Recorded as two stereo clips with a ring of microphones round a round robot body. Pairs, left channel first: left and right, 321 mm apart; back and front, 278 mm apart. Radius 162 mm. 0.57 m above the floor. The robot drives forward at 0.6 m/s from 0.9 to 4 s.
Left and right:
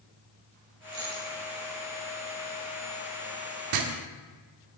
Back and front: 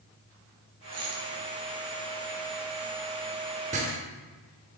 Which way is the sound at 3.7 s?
65° right.